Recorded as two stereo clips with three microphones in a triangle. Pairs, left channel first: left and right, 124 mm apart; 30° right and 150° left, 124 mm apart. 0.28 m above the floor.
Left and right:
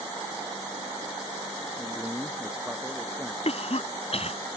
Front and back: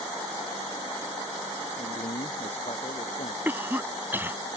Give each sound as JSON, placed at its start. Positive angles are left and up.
{"t": 1.8, "sound": "a man speaking", "azimuth_deg": -10}
{"t": 3.5, "sound": "a cough", "azimuth_deg": 80}